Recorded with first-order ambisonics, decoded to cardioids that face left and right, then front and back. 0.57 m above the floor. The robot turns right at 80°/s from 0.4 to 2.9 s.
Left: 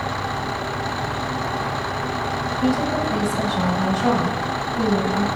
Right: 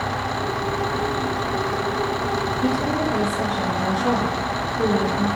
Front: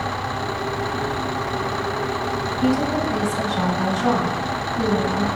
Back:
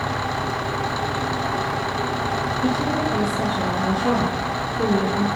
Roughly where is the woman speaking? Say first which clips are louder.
Left 1 dB, front 1 dB; ahead left.